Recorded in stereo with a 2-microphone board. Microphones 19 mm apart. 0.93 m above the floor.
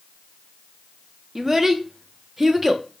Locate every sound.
1.4 s a child speaking: 30° right (ahead or behind), 0.6 m